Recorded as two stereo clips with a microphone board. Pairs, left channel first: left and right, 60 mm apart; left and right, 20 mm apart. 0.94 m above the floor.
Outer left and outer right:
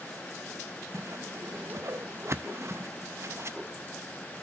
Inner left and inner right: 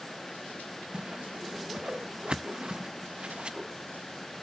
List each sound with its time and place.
0.9 s a whoosh: 55° right (ahead or behind), 0.6 m